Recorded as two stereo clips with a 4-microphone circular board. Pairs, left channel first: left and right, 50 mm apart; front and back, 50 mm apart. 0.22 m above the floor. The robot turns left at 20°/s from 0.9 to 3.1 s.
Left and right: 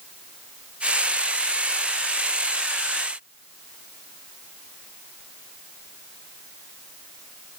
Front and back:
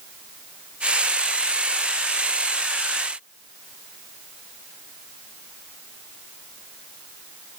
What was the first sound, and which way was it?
Only background noise.